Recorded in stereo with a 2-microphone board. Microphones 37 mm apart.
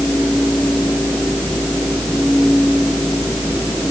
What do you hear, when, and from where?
Only background noise.